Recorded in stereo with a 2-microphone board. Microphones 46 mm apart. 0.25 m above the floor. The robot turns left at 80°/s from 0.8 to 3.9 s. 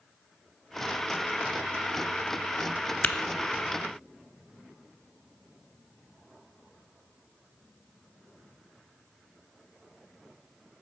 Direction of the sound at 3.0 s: 30° left (ahead or behind).